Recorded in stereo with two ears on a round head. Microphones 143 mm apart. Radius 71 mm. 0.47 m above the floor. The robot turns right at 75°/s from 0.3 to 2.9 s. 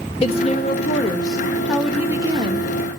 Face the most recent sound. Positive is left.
turn(degrees=-100)